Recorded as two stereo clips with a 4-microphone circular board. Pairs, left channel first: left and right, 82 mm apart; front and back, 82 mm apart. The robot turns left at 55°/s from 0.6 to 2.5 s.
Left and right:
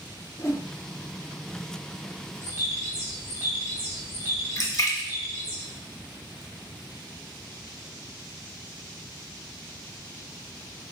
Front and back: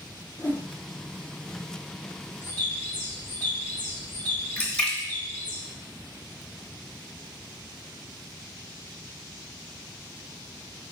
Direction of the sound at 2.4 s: 50° right.